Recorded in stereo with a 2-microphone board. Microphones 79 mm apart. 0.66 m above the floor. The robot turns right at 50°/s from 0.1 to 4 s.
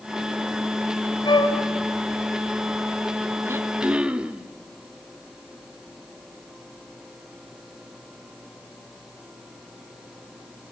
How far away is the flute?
About 5 m.